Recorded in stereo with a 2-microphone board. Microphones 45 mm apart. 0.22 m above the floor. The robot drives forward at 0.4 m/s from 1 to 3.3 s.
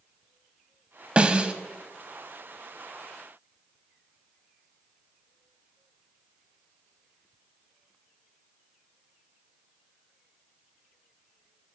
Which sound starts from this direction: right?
A snare drum, at 1.2 s.